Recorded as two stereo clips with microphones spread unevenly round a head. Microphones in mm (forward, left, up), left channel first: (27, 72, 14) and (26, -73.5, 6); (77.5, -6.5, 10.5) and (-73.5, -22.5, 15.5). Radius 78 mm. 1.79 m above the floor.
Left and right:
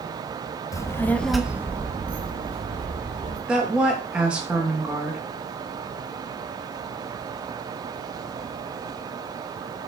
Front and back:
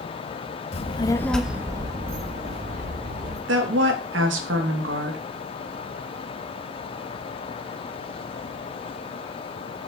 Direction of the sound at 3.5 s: 175° right.